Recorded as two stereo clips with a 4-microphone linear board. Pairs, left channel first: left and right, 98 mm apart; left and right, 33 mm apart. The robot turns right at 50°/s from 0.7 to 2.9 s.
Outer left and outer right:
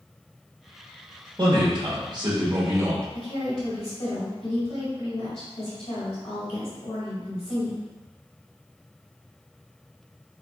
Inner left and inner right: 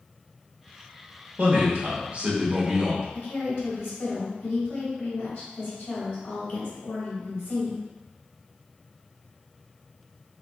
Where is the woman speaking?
65° left (ahead or behind), 1.8 m.